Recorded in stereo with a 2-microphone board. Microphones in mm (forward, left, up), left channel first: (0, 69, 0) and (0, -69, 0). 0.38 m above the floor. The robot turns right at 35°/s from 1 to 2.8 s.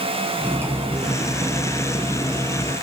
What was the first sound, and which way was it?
Cutlery clinking, 20° right.